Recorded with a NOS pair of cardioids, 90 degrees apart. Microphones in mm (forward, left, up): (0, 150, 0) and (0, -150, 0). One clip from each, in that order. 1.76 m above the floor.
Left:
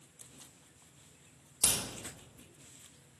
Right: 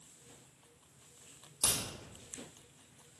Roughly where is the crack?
Ahead.